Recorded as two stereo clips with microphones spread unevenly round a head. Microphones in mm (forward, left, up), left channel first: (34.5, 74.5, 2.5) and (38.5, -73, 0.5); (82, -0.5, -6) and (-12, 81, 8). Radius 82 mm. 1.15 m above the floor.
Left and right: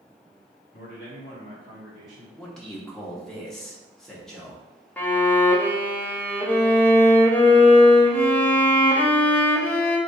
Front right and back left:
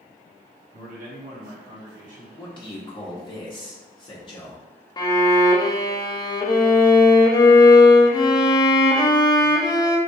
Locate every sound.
0.7 s a man speaking: 120° left, 1.7 m; by 2.3 s 170° right, 1.4 m
2.4 s a man speaking: 5° left, 0.8 m
5.0 s a violin: 15° left, 0.6 m